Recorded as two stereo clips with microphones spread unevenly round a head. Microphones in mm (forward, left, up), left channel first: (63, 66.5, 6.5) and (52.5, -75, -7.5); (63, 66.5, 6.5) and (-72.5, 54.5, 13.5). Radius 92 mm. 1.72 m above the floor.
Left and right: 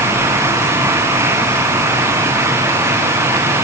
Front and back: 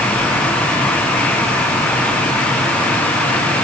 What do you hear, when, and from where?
Only background noise.